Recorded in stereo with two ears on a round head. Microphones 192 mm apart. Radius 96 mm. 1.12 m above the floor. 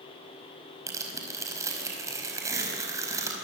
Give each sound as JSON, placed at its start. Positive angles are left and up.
{"t": 0.9, "sound": "tearing paper", "side_deg": -15, "distance_m": 5.0}